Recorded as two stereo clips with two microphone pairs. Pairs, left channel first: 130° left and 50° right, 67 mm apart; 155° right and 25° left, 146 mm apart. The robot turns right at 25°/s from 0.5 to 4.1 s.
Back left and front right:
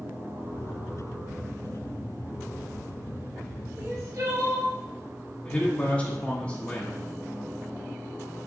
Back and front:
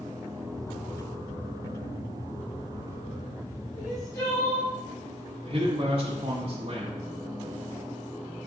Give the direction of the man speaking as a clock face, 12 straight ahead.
10 o'clock.